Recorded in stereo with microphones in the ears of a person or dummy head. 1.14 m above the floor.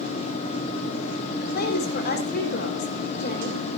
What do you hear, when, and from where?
1.4 s a woman speaking: 50° left (ahead or behind), 4 m